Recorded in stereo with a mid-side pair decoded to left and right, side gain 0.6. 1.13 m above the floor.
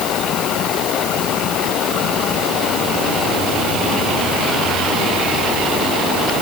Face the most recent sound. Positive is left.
No sound to turn to.